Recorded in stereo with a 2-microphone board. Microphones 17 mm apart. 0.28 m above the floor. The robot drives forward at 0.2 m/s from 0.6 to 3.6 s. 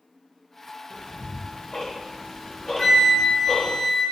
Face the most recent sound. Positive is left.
turn(degrees=20)  # may be behind; listen again after turning